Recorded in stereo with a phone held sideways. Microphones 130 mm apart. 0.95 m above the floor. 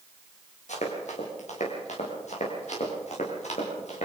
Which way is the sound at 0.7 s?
70° left (ahead or behind).